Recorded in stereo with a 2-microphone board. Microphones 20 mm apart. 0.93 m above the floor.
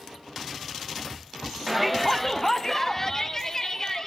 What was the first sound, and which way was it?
A shout, 15° right (ahead or behind).